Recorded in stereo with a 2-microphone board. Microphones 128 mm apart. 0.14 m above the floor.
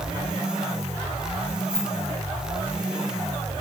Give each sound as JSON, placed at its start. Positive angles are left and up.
{"t": 1.7, "sound": "keys jangling", "side_deg": 5, "distance_m": 1.4}